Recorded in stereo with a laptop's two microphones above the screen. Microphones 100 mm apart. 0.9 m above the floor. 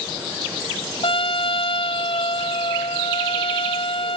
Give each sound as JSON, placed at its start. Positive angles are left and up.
{"t": 1.0, "sound": "a trumpet", "side_deg": 65}